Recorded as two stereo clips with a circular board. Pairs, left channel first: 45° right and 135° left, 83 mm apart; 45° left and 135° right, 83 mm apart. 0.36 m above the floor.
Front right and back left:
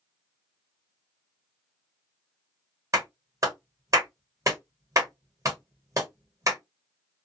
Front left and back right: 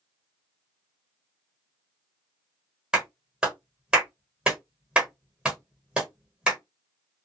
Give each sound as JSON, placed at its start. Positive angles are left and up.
{"t": 2.9, "sound": "a clap", "azimuth_deg": 150, "distance_m": 1.3}